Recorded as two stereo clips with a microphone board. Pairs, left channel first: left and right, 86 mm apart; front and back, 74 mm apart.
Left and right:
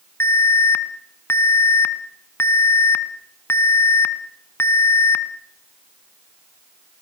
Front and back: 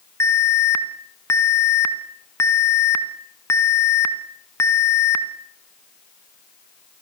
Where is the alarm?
35° left, 1.5 m.